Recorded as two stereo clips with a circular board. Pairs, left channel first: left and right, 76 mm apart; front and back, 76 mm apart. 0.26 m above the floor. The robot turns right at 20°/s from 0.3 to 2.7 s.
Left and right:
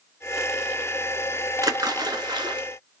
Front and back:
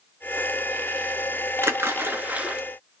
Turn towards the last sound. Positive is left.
turn(degrees=-105)